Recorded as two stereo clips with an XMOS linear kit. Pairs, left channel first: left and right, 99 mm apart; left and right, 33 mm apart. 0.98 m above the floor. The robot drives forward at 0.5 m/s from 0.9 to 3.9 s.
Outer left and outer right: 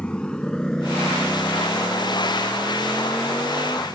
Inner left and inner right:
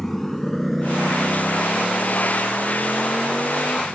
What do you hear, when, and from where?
0.0 s a motorcycle: 10° left (ahead or behind); by 3.9 s 5° left (ahead or behind)